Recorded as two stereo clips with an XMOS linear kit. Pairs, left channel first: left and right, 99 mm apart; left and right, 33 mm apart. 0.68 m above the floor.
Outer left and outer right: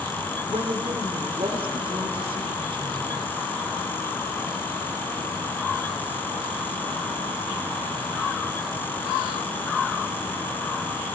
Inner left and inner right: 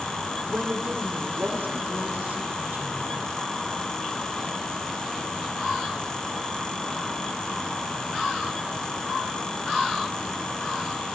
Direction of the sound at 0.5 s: 65° right (ahead or behind).